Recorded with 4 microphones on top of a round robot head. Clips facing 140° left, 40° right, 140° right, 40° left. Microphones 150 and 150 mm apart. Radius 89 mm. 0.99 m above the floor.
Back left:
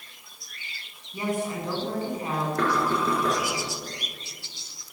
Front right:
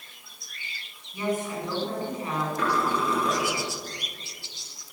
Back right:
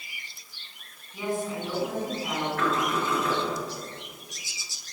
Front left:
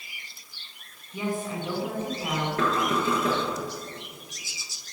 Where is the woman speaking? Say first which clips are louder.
Even, even; 75° left, 8.5 m.